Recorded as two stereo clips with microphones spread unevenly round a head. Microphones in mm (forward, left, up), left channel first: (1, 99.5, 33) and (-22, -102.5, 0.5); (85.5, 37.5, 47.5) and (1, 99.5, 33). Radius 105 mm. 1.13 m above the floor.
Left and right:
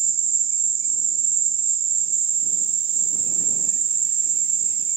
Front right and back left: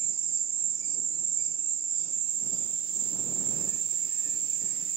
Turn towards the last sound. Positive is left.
turn(degrees=-160)